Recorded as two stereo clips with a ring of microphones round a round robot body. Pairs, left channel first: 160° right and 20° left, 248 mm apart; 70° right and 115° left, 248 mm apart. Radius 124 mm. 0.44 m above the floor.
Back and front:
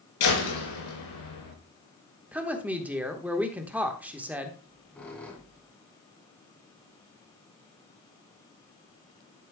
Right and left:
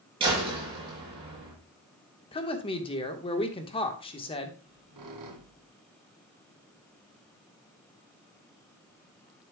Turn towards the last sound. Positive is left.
turn(degrees=115)